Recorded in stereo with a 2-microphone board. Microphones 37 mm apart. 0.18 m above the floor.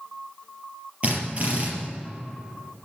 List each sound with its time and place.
1.0 s a drill: 35° right (ahead or behind), 4.5 m